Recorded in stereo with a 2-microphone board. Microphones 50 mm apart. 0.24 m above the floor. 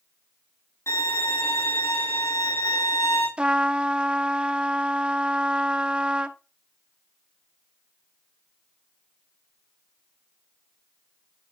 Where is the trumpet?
20° right (ahead or behind), 0.6 m.